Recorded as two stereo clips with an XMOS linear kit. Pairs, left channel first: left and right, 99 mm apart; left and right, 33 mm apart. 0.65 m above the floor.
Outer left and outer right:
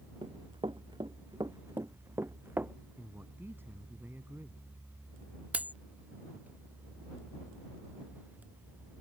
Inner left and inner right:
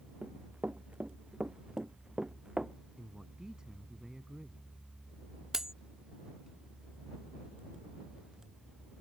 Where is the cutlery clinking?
15° right (ahead or behind).